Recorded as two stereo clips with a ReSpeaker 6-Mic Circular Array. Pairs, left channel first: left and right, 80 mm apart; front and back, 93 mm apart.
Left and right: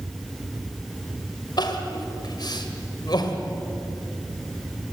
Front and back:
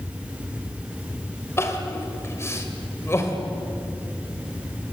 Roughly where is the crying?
Ahead left.